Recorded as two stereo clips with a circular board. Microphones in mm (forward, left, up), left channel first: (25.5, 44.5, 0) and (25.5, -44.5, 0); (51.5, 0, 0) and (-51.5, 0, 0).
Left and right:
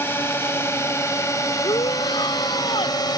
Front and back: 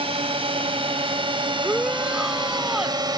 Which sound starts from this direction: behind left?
A drone, at 0.0 s.